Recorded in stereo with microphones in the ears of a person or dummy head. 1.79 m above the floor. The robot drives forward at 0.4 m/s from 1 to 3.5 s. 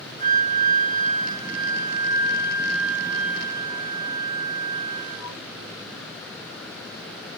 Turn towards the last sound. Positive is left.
turn(degrees=60)  # may be behind; listen again after turning